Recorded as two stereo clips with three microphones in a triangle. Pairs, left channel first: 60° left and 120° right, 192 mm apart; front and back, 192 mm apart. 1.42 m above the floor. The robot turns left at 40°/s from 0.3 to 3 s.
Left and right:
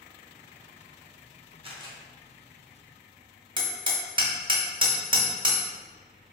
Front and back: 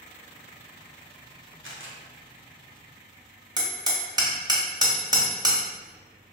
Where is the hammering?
145° right, 0.9 m.